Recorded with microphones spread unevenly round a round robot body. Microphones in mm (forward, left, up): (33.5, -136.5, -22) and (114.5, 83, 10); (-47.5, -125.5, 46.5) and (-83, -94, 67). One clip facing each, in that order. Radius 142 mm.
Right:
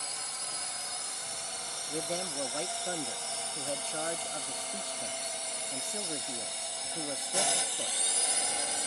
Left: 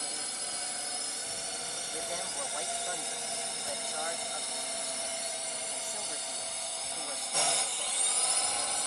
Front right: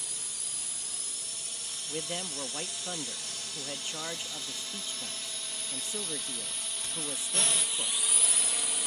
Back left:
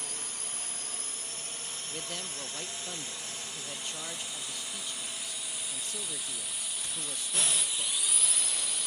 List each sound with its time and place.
0.0 s a drone: 100° left; by 8.9 s 55° right
1.9 s a man speaking: 75° right